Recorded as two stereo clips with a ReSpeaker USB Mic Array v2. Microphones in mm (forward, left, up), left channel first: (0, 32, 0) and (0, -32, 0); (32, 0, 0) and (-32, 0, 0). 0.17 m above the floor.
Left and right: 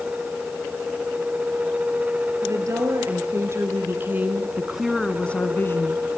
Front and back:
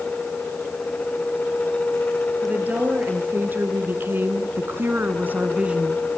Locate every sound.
2.4 s a woman speaking: 115° right, 4 m; by 6.0 s 110° left, 2 m